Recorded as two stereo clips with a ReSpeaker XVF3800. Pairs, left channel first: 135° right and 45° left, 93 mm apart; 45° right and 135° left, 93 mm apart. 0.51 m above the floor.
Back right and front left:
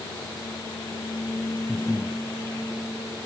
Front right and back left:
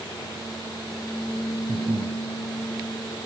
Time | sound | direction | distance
1.7 | breathing | 135° left | ?